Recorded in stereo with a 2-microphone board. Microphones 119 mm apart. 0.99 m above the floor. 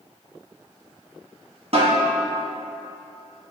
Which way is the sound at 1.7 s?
55° right (ahead or behind).